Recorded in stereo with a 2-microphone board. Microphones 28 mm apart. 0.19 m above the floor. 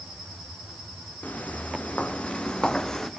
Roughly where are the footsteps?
Left.